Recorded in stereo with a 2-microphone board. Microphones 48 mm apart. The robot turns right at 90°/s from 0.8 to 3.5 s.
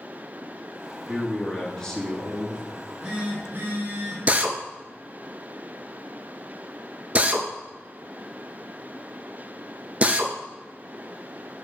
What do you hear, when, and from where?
1.1 s a man speaking: 35° right, 1.9 m; by 2.6 s 105° left, 1.9 m
2.8 s a phone buzzing: 165° left, 2 m; by 4.2 s 125° right, 2 m
4.3 s a drill: 30° right (ahead or behind), 0.5 m